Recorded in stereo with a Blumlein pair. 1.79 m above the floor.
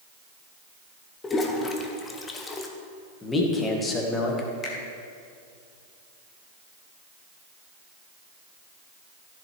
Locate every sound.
1.2 s a toilet flushing: 15° left, 1.1 m
3.2 s a man speaking: 15° left, 1.9 m
4.6 s a finger snap: 25° left, 2 m